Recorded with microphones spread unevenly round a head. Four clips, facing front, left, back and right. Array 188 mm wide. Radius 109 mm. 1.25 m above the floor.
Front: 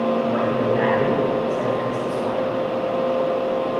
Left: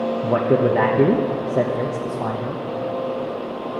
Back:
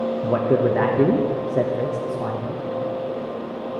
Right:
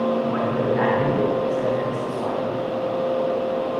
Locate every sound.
0.2 s a man speaking: 125° left, 1.0 m